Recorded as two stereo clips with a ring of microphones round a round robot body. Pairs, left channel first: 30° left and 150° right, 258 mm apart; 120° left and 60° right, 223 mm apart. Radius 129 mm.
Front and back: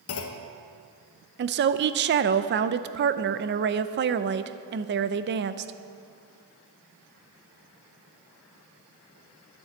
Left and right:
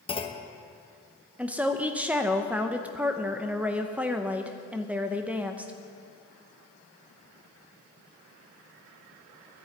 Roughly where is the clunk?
Ahead left.